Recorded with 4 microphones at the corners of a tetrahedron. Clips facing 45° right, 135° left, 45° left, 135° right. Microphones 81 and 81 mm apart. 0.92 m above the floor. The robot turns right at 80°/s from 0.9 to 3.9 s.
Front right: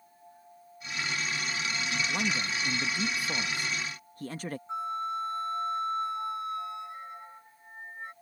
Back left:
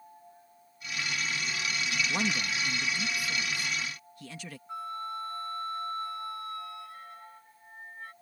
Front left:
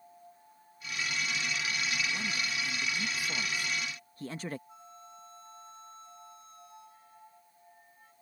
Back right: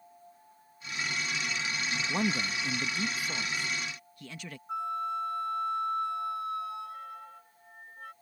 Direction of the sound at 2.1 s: 150° right.